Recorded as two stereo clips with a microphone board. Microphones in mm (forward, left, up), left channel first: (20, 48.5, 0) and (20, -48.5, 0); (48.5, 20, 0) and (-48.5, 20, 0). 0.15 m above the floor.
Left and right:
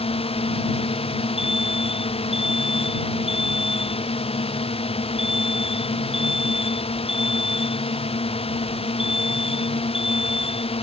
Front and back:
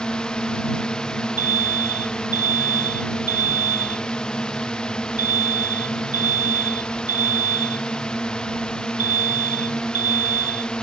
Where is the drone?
80° left.